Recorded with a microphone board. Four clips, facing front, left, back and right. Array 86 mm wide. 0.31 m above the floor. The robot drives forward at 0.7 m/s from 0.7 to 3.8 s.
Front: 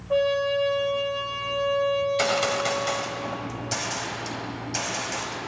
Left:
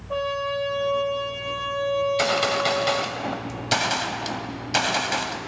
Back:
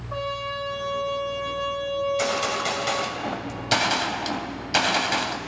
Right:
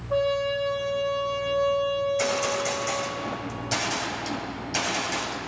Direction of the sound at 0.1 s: 35° left.